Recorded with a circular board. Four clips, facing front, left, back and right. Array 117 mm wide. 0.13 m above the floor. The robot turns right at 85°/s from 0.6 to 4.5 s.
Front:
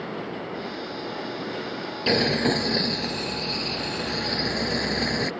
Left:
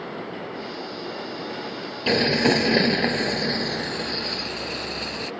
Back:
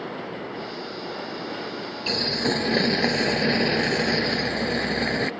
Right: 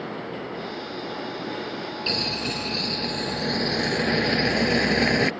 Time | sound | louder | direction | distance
2.1 | boiling | left 13 dB, front 4 dB | 50° left | ?